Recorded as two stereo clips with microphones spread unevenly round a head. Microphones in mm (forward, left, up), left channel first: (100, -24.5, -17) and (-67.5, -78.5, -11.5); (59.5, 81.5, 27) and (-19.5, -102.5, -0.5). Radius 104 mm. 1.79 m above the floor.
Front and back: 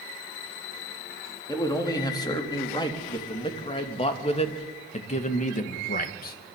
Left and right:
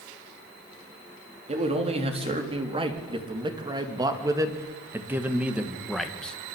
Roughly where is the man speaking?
Ahead right.